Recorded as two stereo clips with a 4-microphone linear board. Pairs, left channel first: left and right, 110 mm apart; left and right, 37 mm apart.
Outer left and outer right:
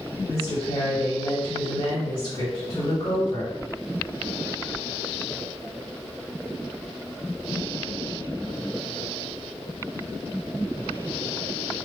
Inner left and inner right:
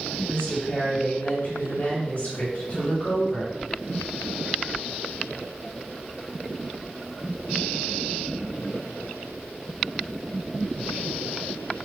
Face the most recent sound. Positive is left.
turn(degrees=50)  # may be behind; listen again after turning